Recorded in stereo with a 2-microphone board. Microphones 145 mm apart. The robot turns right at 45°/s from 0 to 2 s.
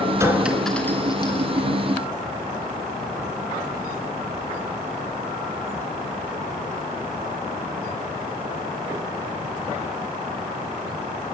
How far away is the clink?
About 3 m.